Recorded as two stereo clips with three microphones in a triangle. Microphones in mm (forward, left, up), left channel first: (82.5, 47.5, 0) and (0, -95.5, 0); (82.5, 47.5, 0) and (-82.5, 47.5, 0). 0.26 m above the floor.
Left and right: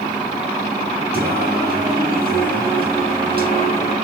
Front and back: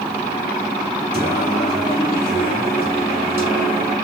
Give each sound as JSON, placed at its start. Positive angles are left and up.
{"t": 1.1, "sound": "singing", "azimuth_deg": -105, "distance_m": 2.5}